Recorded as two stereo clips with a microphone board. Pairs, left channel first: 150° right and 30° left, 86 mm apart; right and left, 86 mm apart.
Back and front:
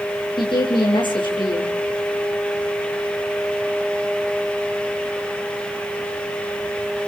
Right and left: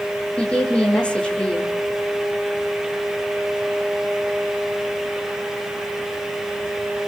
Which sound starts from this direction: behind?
A woman speaking, at 0.4 s.